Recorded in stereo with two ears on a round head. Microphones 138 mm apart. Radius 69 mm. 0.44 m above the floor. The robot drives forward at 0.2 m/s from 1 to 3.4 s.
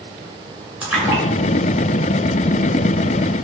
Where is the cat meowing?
I don't hear a cat meowing.